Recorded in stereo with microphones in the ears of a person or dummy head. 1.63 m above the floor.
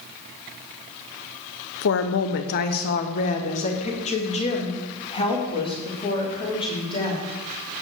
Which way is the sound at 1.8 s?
60° left (ahead or behind).